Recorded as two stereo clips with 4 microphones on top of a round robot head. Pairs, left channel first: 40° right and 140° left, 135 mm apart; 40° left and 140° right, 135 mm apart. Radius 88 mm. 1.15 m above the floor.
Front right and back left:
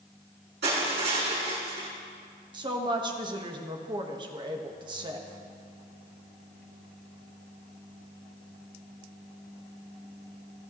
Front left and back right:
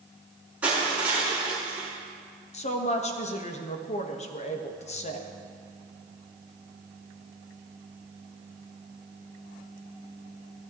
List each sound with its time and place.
0.6 s crushing: 140° left, 5.5 m
2.5 s a woman speaking: 80° left, 1.2 m